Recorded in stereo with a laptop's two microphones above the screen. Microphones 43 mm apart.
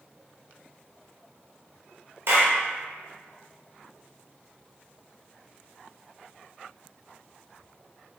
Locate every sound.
2.3 s a clap: 70° right (ahead or behind), 0.7 m